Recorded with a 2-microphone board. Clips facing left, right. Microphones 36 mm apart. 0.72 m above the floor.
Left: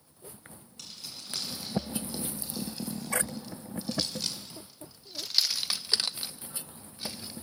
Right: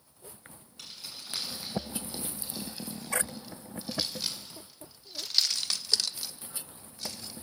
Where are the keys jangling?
10° right (ahead or behind), 6.5 m; by 7.3 s 20° left (ahead or behind), 1.8 m.